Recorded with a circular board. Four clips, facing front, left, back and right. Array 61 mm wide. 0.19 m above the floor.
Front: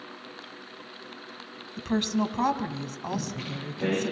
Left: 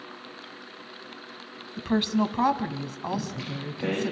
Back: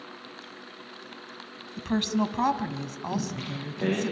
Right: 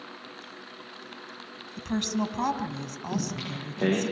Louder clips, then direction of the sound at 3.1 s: Right 2 dB, back 2 dB; 100° right.